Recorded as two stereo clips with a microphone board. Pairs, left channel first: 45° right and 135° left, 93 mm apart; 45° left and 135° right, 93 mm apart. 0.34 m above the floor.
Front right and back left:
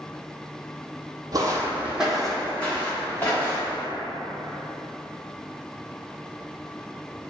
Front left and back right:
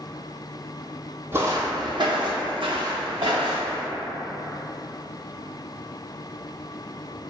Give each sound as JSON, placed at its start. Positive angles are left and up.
{"t": 1.3, "sound": "footsteps", "azimuth_deg": 165, "distance_m": 0.5}